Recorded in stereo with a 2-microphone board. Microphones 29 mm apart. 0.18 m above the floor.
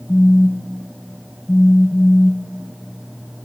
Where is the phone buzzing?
40° left (ahead or behind), 0.5 m.